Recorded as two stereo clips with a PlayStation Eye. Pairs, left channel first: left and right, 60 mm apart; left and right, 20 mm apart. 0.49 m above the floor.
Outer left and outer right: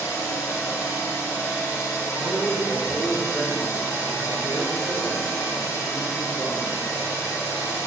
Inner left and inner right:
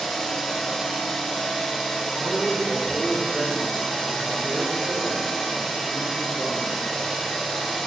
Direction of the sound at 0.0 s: 60° left (ahead or behind).